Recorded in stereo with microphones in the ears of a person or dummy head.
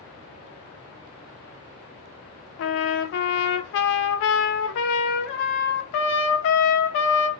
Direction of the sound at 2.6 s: 65° left (ahead or behind).